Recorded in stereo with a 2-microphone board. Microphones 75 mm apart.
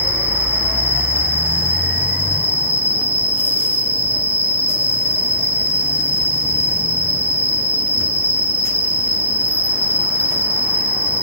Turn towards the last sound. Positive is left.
turn(degrees=-25)  # may be behind; listen again after turning